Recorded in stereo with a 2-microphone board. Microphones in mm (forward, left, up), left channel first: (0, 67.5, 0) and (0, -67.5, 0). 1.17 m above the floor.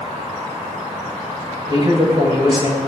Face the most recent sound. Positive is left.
turn(degrees=-35)  # may be behind; listen again after turning